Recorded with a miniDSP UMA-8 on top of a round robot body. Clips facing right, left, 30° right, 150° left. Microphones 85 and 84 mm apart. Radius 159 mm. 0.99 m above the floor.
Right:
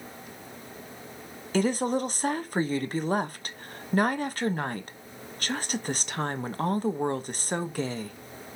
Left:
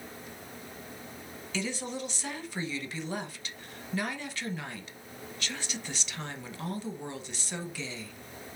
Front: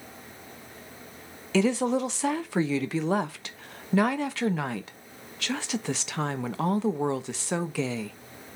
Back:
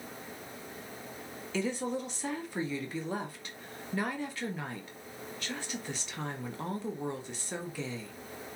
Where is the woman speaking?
45° right, 1.0 m.